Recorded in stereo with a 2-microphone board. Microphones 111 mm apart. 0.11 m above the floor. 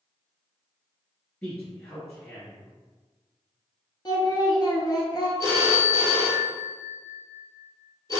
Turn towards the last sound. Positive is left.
turn(degrees=30)  # may be behind; listen again after turning